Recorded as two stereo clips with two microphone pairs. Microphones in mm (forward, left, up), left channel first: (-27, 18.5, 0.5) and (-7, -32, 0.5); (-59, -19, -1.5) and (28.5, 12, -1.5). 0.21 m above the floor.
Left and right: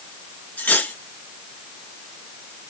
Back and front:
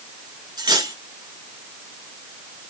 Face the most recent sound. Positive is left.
turn(degrees=55)